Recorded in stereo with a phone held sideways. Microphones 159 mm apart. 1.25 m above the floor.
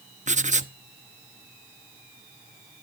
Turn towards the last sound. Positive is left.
turn(degrees=-50)  # may be behind; listen again after turning